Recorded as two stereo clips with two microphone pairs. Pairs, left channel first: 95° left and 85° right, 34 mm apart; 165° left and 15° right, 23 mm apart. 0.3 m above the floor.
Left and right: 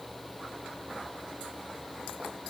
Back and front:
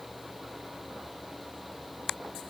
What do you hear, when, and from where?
Only background noise.